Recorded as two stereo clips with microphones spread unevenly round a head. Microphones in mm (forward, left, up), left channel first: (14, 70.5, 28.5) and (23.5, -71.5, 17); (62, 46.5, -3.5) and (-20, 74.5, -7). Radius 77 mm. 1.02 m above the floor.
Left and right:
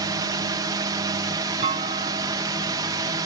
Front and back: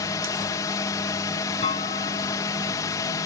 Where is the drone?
45° right.